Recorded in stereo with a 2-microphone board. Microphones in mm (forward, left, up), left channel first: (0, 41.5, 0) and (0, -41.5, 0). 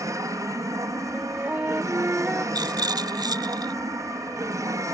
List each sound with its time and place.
0.0 s an aircraft: 40° right (ahead or behind)
1.1 s a flute: 20° right (ahead or behind)
2.5 s a rattle: 55° right (ahead or behind)